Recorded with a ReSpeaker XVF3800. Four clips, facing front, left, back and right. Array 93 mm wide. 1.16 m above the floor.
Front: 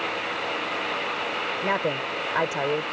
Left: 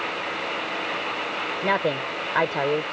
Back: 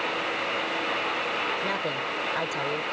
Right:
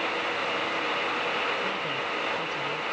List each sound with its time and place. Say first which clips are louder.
1.6 s a woman speaking: left 7 dB, front 3 dB; 65° left